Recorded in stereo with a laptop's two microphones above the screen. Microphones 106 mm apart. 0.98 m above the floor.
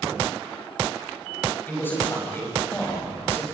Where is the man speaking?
20° left (ahead or behind), 5 m; by 3.4 s 25° left (ahead or behind), 4 m.